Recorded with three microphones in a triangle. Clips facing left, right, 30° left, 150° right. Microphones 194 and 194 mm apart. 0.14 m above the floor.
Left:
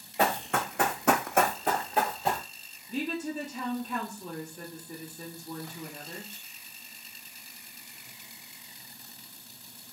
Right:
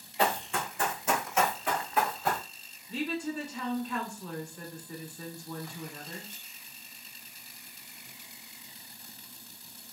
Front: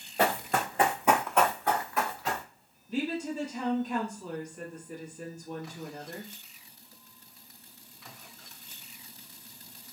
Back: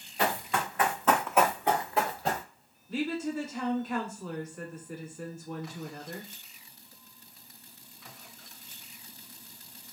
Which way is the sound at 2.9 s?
75° left.